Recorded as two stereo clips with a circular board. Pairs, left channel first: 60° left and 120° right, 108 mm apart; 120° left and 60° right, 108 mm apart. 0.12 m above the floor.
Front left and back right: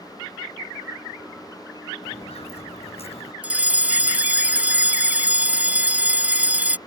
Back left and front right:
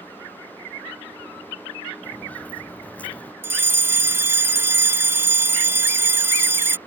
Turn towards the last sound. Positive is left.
turn(degrees=-70)